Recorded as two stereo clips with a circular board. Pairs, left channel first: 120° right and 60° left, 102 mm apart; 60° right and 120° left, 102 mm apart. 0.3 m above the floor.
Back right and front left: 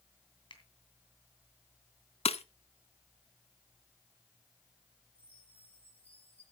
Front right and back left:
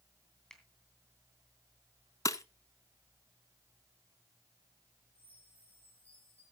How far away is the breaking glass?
About 0.6 m.